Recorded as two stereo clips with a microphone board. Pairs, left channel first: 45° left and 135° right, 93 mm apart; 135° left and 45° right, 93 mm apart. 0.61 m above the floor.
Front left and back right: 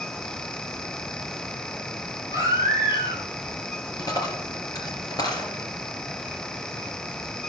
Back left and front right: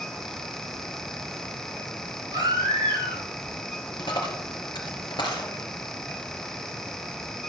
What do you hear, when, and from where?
2.3 s a baby crying: straight ahead, 8.5 m
4.0 s a dropped coin: 95° left, 3 m